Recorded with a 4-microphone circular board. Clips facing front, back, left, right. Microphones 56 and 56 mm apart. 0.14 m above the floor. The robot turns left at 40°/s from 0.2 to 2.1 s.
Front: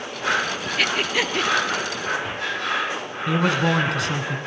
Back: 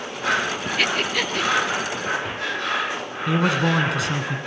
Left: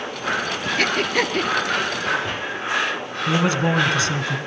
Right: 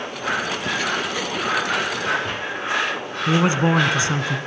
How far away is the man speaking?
About 1.0 m.